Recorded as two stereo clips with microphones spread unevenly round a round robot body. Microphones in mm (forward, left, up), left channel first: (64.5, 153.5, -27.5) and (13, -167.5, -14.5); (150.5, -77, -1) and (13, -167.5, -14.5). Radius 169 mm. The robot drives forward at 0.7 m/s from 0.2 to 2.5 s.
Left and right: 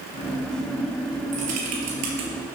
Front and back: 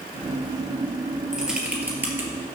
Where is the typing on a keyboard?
60° right, 3.5 m; by 2.3 s 70° right, 3 m.